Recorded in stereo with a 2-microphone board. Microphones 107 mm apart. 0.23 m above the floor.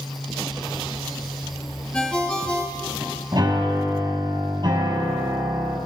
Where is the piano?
40° right (ahead or behind), 4.5 m.